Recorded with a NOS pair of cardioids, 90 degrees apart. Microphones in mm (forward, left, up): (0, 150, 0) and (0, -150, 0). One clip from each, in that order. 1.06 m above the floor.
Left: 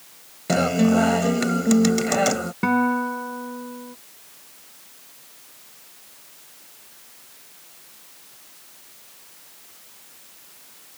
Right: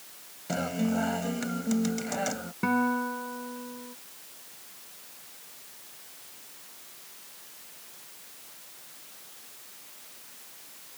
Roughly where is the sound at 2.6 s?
Ahead left.